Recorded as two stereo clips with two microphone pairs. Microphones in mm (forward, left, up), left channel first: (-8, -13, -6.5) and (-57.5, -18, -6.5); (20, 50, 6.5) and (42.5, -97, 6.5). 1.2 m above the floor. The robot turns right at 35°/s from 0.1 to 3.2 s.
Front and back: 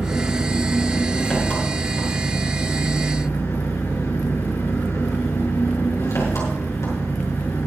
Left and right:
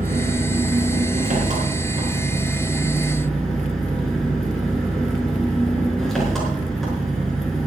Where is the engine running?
100° right, 6 m; by 7.7 s 10° left, 6 m.